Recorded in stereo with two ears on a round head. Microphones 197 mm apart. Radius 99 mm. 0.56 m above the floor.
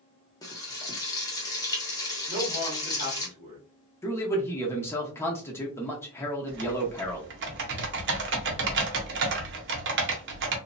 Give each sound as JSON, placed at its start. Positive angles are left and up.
{"t": 0.4, "sound": "frying", "side_deg": 15, "distance_m": 0.9}
{"t": 2.3, "sound": "a man speaking", "side_deg": -30, "distance_m": 1.5}
{"t": 4.0, "sound": "a man speaking", "side_deg": 10, "distance_m": 0.8}
{"t": 6.5, "sound": "typing on a keyboard", "side_deg": -55, "distance_m": 0.7}